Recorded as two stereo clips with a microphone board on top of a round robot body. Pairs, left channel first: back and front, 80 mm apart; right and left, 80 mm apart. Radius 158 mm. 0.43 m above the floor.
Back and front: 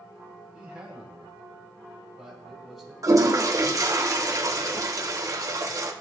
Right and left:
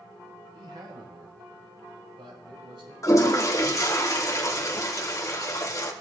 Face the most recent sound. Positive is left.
turn(degrees=-45)